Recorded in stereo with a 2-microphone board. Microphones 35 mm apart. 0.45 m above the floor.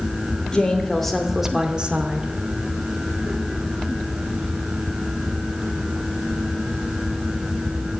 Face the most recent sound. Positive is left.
turn(degrees=-45)  # may be behind; listen again after turning